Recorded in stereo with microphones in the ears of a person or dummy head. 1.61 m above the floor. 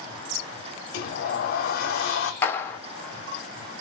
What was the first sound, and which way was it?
A sliding door, 60° left (ahead or behind).